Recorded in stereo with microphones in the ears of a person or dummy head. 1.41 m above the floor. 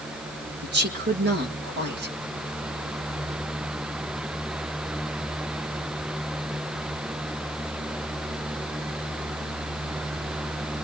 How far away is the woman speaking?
About 2 m.